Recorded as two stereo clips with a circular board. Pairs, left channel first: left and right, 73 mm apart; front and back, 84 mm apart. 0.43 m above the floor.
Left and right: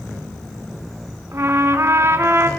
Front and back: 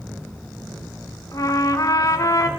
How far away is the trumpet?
About 1.2 m.